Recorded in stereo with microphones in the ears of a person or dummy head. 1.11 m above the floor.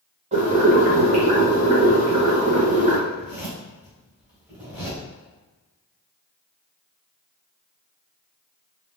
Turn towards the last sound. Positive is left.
turn(degrees=-5)  # may be behind; listen again after turning